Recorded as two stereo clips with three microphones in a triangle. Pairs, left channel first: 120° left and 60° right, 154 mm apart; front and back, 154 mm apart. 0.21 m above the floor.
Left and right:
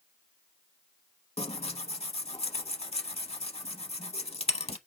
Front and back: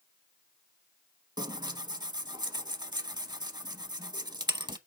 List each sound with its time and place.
1.4 s tearing paper: 135° left, 0.7 m